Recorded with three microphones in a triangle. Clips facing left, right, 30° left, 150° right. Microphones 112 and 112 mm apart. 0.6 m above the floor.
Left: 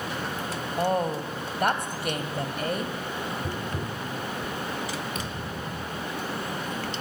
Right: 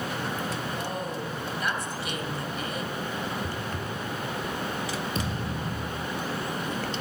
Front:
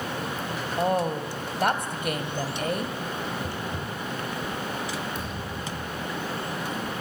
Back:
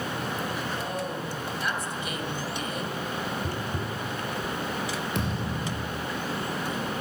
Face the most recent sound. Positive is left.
turn(degrees=-145)